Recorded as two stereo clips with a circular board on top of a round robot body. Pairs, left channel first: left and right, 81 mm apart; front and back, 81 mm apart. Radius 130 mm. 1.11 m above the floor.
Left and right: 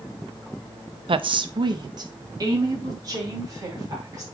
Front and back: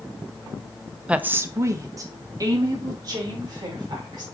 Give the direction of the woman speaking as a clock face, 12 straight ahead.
3 o'clock.